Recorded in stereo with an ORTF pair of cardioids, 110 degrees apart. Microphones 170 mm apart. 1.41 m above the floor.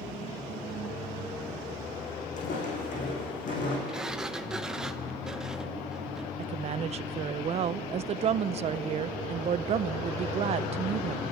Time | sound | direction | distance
2.4 | footsteps | 55° left | 6 m
3.9 | a sliding door | 5° right | 0.9 m
6.4 | a woman speaking | 40° right | 0.6 m